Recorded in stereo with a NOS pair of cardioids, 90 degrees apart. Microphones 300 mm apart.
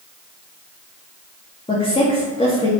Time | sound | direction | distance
1.7 | a woman speaking | 20° left | 2.5 m